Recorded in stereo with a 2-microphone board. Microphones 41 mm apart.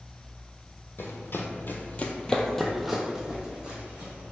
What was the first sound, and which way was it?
Running footsteps, 65° left (ahead or behind).